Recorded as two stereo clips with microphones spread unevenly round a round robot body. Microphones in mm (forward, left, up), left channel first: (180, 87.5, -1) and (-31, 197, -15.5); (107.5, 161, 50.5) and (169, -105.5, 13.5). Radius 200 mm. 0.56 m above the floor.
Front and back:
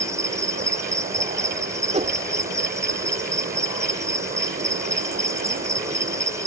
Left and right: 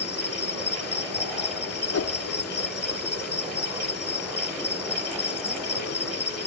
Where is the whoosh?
100° left.